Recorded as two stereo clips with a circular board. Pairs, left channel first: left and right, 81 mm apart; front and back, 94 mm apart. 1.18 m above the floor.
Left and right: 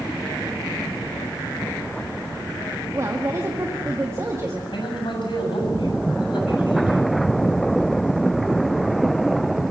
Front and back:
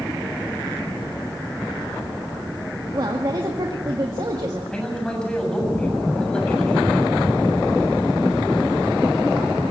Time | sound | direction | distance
2.9 | a woman speaking | 140° right | 1.8 m
4.7 | a man speaking | 80° left | 7 m